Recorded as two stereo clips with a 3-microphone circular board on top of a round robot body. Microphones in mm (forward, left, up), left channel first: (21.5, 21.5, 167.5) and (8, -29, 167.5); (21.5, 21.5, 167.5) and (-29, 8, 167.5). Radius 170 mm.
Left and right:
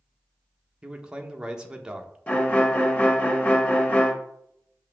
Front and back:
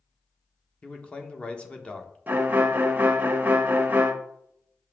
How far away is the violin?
About 0.9 m.